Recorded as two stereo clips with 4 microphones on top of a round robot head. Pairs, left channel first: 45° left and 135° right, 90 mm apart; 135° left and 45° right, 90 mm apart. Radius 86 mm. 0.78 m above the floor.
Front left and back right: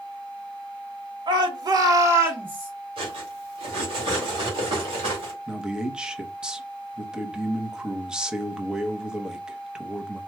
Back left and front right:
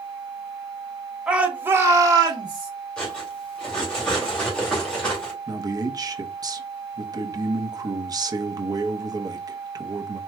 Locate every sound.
1.3 s a shout: 125° right, 1.3 m; by 2.7 s 60° right, 1.4 m
3.0 s cutlery clinking: 145° right, 2 m
5.5 s a man speaking: 55° right, 0.9 m